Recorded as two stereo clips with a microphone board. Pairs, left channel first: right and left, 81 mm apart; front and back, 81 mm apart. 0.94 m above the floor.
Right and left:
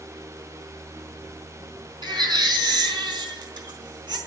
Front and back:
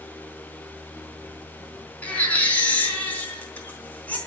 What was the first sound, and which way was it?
A baby crying, 70° left.